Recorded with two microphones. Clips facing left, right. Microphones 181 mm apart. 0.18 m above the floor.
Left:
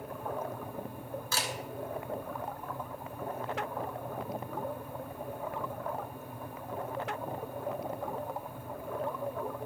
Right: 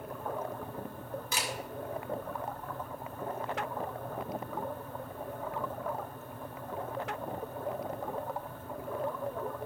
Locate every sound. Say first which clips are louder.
1.3 s a camera shutter: left 1 dB; 15° right (ahead or behind), 1.9 m